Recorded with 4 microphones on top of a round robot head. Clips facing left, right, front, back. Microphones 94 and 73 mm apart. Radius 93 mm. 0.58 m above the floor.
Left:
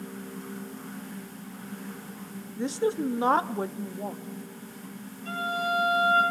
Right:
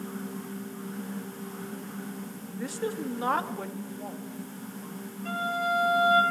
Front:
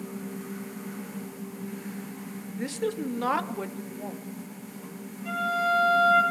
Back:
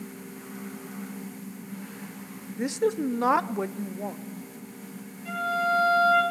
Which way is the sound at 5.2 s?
75° right.